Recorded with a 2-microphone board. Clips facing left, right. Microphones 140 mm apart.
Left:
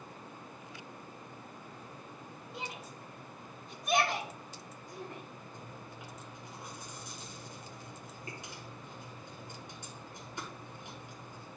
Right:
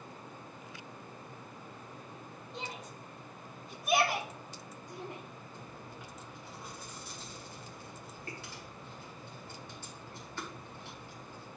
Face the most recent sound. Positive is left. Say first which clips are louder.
# even
turn(degrees=15)  # may be behind; listen again after turning